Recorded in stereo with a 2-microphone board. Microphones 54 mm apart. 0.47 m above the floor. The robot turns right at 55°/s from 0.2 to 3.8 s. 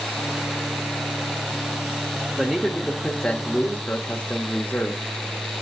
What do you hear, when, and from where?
2.4 s a man speaking: centre (ahead or behind), 0.8 m; by 5.0 s 25° left (ahead or behind), 0.8 m